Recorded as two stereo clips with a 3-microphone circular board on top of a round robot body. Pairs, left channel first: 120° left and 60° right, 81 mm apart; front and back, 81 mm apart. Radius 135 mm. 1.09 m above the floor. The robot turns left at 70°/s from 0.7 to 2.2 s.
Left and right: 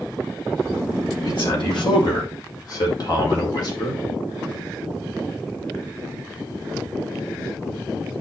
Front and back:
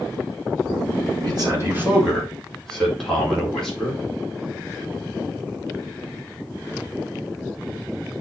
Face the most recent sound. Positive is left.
turn(degrees=85)